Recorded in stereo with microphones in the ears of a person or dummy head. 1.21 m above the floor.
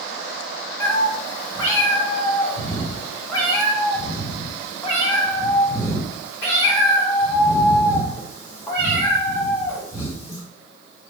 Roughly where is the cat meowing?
Centre.